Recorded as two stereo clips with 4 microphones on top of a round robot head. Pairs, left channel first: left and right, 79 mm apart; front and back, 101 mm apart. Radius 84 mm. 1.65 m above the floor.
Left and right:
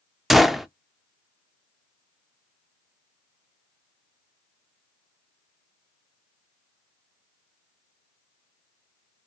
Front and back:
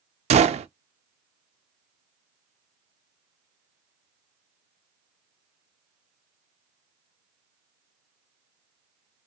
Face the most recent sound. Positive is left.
turn(degrees=180)